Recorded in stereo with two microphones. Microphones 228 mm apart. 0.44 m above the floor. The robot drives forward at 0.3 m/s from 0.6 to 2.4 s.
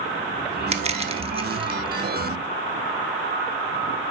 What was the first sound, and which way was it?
Crushing, 30° right (ahead or behind).